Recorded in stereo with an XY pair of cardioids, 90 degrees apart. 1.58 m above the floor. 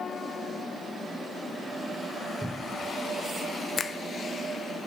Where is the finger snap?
45° left, 1.0 m.